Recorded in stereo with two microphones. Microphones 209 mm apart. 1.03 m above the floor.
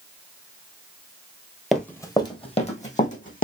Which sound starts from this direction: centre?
Running footsteps, at 1.7 s.